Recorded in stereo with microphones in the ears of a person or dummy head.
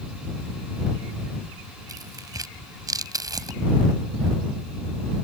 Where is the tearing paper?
15° right (ahead or behind).